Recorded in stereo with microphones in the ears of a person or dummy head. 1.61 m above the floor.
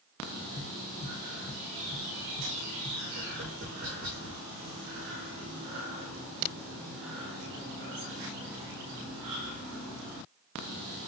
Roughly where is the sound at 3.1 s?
Right.